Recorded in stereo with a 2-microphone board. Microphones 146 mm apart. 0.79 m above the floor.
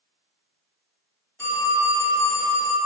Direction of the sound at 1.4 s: 20° left (ahead or behind).